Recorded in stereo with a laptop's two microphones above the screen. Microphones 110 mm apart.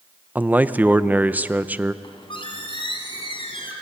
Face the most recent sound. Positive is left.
turn(degrees=50)  # may be behind; listen again after turning